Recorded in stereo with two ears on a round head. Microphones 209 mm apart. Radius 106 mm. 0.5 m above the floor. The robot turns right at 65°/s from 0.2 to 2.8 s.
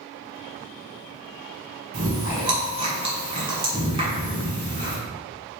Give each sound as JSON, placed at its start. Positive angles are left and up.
{"t": 1.9, "sound": "chewing", "side_deg": -40, "distance_m": 1.5}